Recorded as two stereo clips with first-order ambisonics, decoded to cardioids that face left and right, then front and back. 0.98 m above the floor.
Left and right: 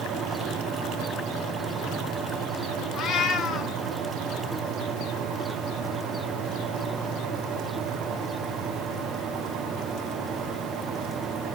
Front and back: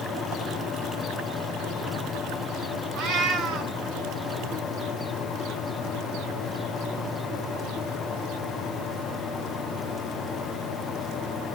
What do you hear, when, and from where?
3.0 s a cat meowing: 140° left, 1.3 m